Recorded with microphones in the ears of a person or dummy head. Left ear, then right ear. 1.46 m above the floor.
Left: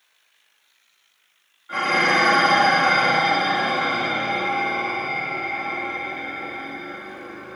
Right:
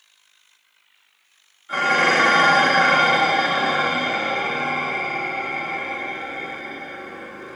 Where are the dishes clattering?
5° right (ahead or behind), 0.9 m.